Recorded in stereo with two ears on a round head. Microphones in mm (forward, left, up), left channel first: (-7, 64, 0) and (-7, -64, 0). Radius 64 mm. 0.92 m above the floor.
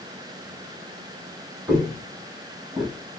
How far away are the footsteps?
About 1.6 m.